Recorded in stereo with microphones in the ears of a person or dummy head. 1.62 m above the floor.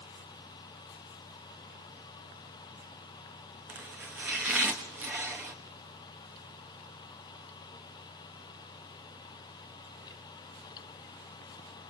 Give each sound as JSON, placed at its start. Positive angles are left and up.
{"t": 3.7, "sound": "chopping", "side_deg": -10, "distance_m": 1.2}